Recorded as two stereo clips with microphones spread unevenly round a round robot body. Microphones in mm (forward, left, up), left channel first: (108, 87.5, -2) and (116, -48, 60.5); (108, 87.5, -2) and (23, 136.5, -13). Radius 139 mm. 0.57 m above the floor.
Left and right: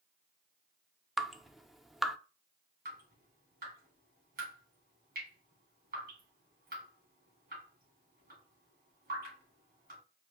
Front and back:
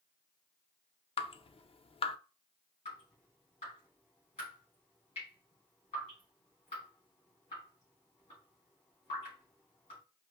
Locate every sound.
1.2 s dripping: straight ahead, 0.6 m
2.9 s dripping: 75° right, 2.5 m